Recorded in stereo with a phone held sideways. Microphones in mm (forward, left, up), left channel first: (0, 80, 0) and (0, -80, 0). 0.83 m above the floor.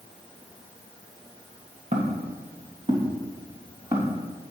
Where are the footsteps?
45° right (ahead or behind), 3.5 m; by 4.2 s 25° right (ahead or behind), 3.5 m.